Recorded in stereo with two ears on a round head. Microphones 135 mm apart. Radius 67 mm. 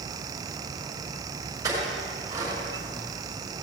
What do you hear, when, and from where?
1.6 s a clink: 25° right (ahead or behind), 6 m